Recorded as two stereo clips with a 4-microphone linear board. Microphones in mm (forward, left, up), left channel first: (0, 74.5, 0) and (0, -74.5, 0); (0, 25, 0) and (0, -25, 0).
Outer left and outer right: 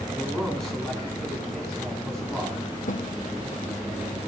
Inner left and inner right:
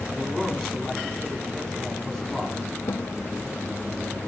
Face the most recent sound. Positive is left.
turn(degrees=60)  # may be behind; listen again after turning